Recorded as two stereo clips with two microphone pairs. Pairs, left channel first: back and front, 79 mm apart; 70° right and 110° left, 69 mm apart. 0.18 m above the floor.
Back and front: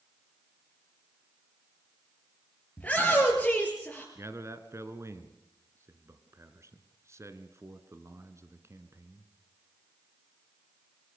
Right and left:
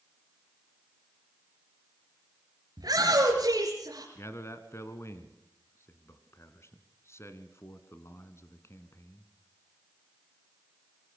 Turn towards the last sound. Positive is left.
turn(degrees=-40)